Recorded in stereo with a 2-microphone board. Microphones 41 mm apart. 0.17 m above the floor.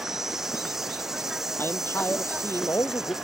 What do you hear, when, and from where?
0.0 s an insect: 10° right (ahead or behind)
1.6 s a man speaking: 70° left (ahead or behind)